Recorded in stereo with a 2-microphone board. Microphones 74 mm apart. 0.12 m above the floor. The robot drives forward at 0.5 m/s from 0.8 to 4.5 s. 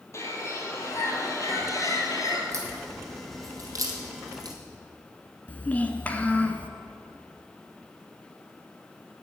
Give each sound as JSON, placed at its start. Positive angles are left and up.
{"t": 0.1, "sound": "a bird", "side_deg": 40, "distance_m": 2.0}
{"t": 2.5, "sound": "a crack", "side_deg": -40, "distance_m": 2.5}
{"t": 5.5, "sound": "a child speaking", "side_deg": 20, "distance_m": 0.8}